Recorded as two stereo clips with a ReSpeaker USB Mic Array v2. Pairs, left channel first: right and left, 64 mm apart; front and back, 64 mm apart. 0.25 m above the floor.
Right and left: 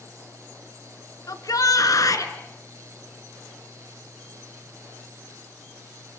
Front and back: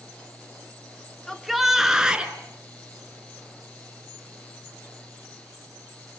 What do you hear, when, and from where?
1.3 s a shout: 85° right, 3 m; by 2.3 s 110° right, 3.5 m